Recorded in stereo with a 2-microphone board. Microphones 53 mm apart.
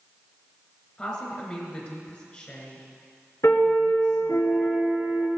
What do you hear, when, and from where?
1.0 s a woman speaking: 20° left (ahead or behind), 3.5 m
3.4 s a piano: 70° left (ahead or behind), 2.5 m